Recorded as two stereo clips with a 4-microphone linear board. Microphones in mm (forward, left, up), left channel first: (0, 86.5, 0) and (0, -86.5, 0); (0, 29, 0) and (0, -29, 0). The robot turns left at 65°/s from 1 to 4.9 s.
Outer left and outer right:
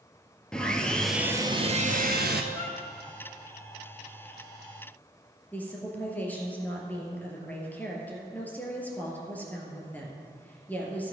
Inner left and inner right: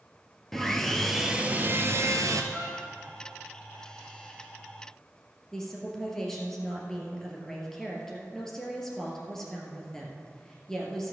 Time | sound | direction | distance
0.5 | sawing | 5° left | 1.0 m
2.5 | a violin | 55° right (ahead or behind) | 4 m
5.5 | a woman speaking | 10° left (ahead or behind) | 2.5 m